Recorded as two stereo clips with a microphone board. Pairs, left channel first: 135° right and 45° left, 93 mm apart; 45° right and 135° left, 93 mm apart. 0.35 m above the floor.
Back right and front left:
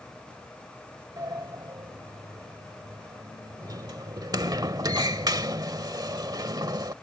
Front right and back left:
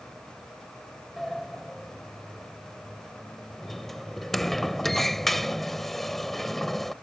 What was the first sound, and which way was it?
A sliding door, 40° left.